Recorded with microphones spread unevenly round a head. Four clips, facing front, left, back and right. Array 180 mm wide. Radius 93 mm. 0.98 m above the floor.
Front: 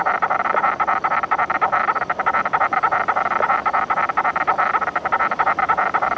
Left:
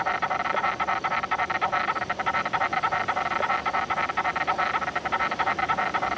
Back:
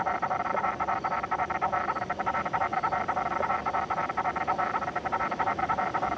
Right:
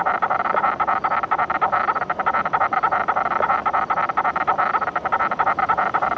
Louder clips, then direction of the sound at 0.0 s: Right 6 dB, front 9 dB; 35° right.